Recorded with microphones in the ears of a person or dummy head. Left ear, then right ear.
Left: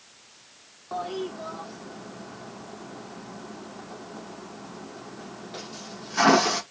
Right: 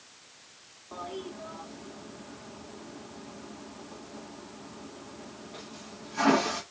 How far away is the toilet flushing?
About 0.9 m.